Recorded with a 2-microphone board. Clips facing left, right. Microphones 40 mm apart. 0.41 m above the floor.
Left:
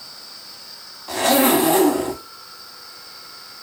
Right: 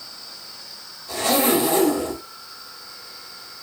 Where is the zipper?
65° left (ahead or behind), 0.8 m.